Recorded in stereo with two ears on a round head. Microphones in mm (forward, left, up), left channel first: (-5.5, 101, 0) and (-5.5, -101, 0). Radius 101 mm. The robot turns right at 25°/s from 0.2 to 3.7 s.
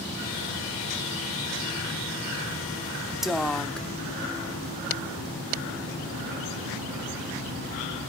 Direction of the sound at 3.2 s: Centre (ahead or behind).